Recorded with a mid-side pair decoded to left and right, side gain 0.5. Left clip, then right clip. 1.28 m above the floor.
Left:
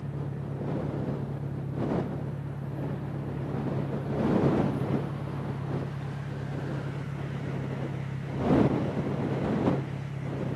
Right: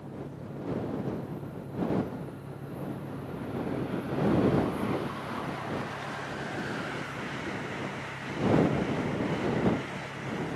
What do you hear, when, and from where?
0.0 s an engine running: 55° left